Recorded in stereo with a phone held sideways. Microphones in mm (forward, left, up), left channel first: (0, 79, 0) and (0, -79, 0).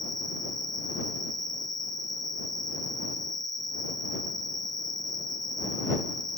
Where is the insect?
25° left (ahead or behind).